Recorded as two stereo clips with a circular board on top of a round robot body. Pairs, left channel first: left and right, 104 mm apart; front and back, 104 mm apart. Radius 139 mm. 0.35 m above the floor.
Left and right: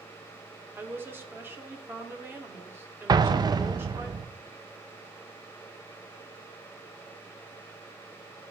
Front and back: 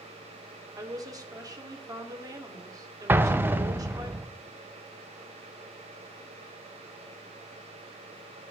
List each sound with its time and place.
0.8 s a woman speaking: 150° right, 1.7 m
3.1 s an explosion: 115° right, 0.7 m